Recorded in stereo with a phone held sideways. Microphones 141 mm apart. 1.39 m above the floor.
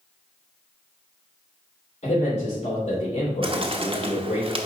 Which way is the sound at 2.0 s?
65° left (ahead or behind).